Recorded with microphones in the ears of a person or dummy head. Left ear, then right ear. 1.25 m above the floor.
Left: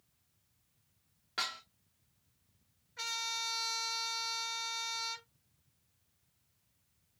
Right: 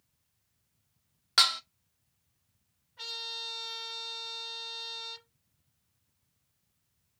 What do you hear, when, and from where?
1.4 s dishes clattering: 45° right (ahead or behind), 0.5 m
3.0 s a trumpet: 65° left (ahead or behind), 4 m